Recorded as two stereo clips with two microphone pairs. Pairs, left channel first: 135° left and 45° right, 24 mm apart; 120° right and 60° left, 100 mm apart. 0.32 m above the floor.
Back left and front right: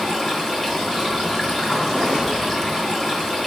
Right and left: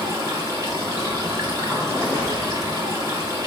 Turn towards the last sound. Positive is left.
turn(degrees=90)